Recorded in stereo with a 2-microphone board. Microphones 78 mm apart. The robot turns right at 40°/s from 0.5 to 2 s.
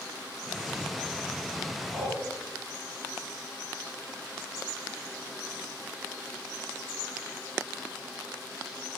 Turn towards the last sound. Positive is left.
turn(degrees=0)  # may be behind; listen again after turning